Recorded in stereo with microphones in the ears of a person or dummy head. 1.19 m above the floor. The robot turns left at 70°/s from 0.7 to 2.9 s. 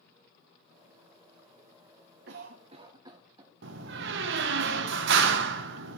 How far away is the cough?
About 0.6 m.